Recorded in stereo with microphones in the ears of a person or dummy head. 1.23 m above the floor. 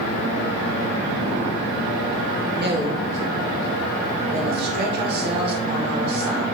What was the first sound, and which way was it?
A woman speaking, 50° right (ahead or behind).